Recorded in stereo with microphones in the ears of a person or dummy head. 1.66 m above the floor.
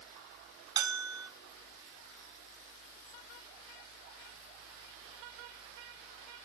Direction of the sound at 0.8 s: 25° right (ahead or behind).